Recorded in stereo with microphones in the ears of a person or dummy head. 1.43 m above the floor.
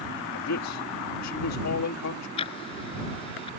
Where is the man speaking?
80° left.